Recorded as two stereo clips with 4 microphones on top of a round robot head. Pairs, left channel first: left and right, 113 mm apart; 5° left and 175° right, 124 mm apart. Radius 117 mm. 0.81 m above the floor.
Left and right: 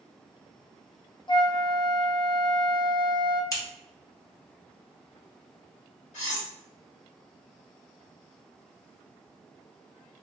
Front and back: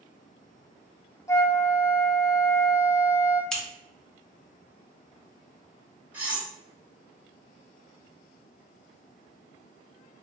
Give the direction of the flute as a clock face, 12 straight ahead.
10 o'clock.